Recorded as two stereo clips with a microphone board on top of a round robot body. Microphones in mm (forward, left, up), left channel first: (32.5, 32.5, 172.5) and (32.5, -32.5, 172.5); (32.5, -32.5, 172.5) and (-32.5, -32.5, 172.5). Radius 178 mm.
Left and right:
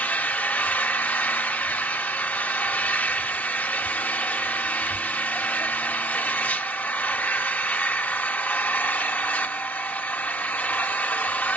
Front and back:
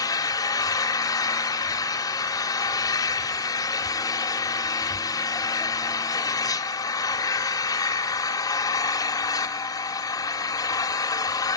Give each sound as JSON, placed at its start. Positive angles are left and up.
{"t": 0.0, "sound": "an engine running", "azimuth_deg": 25, "distance_m": 1.8}